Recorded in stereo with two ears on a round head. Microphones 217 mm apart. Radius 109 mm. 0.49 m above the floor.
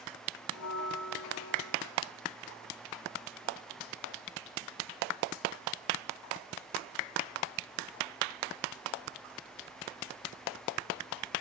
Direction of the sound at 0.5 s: 70° left (ahead or behind).